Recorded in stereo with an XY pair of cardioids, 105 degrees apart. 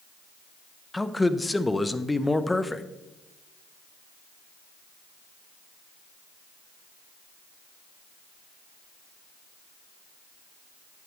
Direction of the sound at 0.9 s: 15° left.